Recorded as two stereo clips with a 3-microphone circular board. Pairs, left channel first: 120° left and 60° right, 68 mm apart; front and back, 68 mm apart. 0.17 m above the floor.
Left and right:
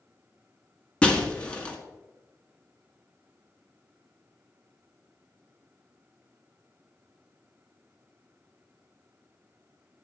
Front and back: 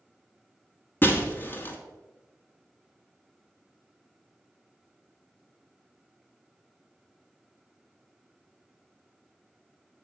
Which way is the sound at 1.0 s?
50° left.